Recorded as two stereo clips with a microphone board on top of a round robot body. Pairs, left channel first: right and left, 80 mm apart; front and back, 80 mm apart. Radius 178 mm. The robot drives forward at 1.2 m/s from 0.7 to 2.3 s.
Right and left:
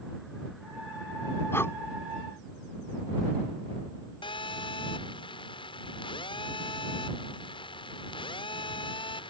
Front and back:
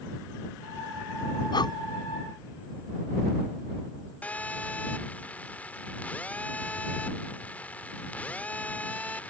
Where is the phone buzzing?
75° right.